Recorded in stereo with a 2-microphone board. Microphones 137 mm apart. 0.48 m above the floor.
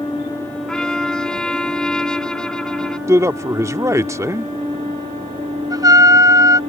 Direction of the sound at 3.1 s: 20° right (ahead or behind).